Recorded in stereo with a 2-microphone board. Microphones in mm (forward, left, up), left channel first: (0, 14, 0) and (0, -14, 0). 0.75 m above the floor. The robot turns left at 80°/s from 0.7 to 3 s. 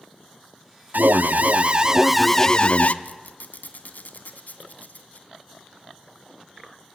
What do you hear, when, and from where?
0.9 s an alarm: 80° right, 0.6 m; by 2.9 s 120° left, 0.6 m
3.0 s a squeak: 70° left (ahead or behind), 1.7 m